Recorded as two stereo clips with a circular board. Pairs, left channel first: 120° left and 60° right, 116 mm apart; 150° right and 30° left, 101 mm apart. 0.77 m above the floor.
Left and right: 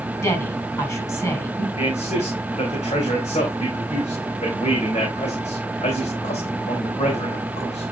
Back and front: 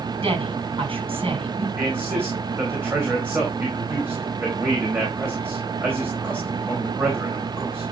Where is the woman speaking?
60° left, 5.5 m.